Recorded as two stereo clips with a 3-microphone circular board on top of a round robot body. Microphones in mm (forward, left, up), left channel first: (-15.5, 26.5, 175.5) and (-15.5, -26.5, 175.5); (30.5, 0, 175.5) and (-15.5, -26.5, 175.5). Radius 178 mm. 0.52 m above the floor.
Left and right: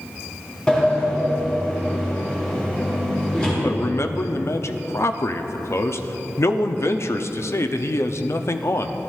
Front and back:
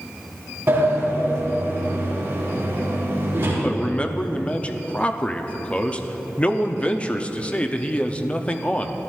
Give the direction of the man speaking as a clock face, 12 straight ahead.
9 o'clock.